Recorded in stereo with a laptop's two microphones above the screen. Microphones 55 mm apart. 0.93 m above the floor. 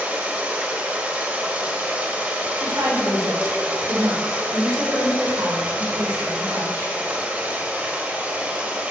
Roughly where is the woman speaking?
Right.